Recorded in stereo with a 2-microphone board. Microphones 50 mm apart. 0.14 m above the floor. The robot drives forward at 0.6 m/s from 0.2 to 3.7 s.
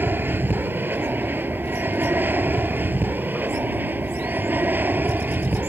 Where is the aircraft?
40° right (ahead or behind).